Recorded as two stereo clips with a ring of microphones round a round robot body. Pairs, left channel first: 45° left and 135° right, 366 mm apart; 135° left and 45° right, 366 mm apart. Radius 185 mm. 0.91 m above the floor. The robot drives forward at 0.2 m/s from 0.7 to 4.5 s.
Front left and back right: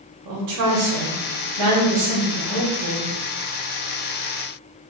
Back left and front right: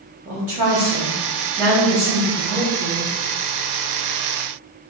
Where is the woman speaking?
130° right, 0.9 m; by 3.1 s 150° right, 1.2 m.